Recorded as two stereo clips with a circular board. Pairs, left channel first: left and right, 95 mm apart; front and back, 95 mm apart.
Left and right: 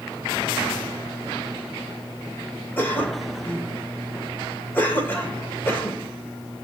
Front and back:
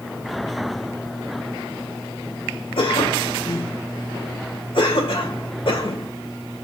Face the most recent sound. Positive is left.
turn(degrees=20)